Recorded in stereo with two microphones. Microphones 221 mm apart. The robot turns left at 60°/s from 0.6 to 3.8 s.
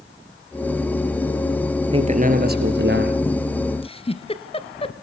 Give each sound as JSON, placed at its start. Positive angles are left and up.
{"t": 1.9, "sound": "a man speaking", "azimuth_deg": -30, "distance_m": 2.5}
{"t": 3.8, "sound": "a giggle", "side_deg": 25, "distance_m": 1.2}